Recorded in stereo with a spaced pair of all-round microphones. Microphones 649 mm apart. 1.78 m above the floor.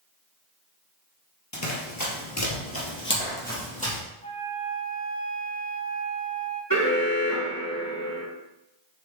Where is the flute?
70° left (ahead or behind), 2.5 m.